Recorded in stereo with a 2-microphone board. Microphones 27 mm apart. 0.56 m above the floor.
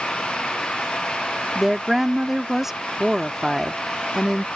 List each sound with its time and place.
1.6 s a woman speaking: 10° right (ahead or behind)